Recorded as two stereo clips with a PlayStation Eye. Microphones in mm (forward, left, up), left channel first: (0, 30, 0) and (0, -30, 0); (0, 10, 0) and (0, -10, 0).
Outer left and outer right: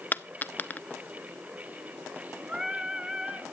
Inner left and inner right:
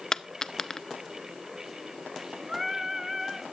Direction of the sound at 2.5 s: 20° right (ahead or behind).